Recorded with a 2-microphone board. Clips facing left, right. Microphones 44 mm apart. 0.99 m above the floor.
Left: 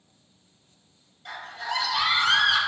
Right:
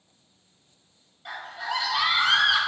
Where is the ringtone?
I don't hear a ringtone.